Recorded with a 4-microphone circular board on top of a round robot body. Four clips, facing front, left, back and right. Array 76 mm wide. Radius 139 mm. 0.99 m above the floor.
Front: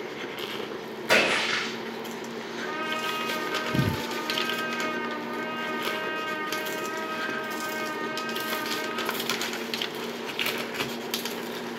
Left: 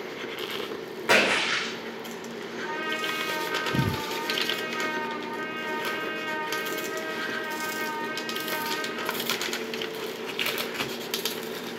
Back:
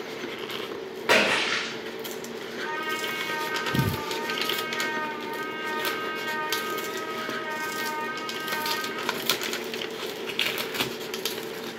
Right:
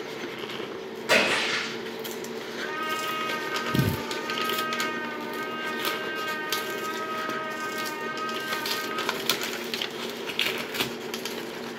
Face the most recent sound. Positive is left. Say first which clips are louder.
# even, even
turn(degrees=170)